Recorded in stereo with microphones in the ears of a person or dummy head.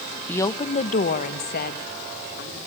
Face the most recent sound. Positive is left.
turn(degrees=60)  # may be behind; listen again after turning